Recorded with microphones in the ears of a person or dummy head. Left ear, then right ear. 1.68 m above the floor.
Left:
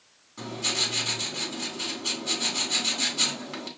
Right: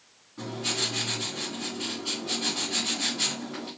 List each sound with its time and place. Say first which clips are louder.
0.4 s writing: left 2 dB; 80° left, 2.5 m